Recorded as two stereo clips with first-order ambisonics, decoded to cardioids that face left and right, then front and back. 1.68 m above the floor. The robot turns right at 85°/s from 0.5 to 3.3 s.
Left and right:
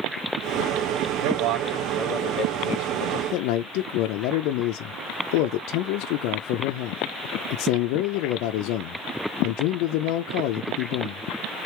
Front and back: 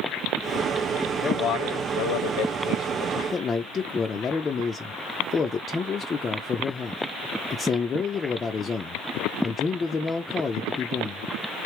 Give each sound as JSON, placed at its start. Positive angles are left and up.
{"t": 1.2, "sound": "a man speaking", "azimuth_deg": -70, "distance_m": 0.9}
{"t": 3.3, "sound": "a man speaking", "azimuth_deg": 70, "distance_m": 0.5}